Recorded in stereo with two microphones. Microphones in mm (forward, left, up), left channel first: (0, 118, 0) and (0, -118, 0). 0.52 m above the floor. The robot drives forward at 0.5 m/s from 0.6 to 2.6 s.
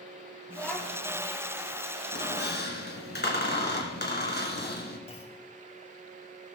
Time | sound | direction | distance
0.5 | a child speaking | 5° left (ahead or behind) | 3 m
2.1 | a squeak | 50° left (ahead or behind) | 2 m
5.1 | a clunk | 25° left (ahead or behind) | 1.5 m